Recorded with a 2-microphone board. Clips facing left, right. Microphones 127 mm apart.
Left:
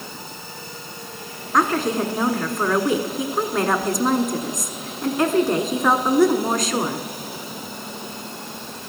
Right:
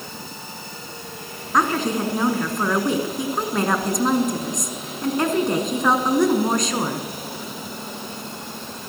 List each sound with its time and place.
1.5 s a woman speaking: centre (ahead or behind), 1.1 m